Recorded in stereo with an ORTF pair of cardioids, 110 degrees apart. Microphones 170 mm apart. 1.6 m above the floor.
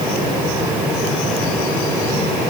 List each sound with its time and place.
Only background noise.